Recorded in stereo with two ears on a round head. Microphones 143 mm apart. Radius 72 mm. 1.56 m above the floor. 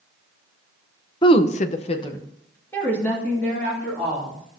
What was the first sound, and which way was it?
A woman speaking, 30° left (ahead or behind).